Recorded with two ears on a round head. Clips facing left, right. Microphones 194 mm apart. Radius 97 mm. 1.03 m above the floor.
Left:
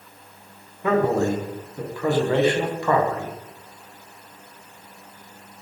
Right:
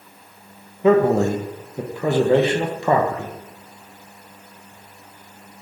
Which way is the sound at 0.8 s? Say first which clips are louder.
Right 5 dB; 20° right (ahead or behind).